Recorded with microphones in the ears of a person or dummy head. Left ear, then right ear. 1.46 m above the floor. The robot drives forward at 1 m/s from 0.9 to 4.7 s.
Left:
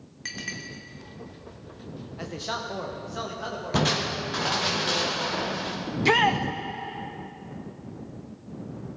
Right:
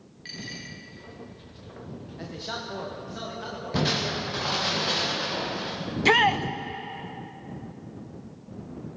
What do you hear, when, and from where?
0.2 s a clink: 40° left (ahead or behind), 2 m
2.2 s a man speaking: 30° left (ahead or behind), 1.3 m; by 4.7 s 10° left (ahead or behind), 3.5 m
3.7 s crushing: 30° left (ahead or behind), 0.7 m; by 5.8 s 10° left (ahead or behind), 1.6 m
5.9 s a shout: 15° right (ahead or behind), 0.6 m